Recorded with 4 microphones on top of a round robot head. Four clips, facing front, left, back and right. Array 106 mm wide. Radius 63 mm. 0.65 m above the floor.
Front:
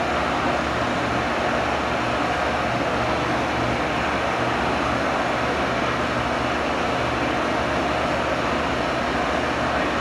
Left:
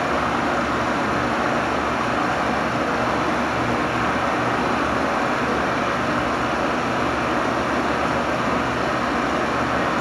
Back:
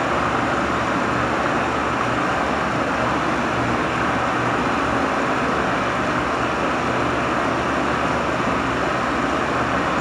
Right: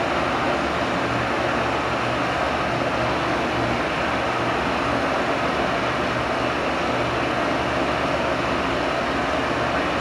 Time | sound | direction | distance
0.0 | running water | 145° left | 6.5 m